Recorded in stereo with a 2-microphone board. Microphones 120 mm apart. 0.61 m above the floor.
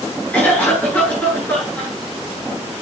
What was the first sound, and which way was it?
A cough, 15° left (ahead or behind).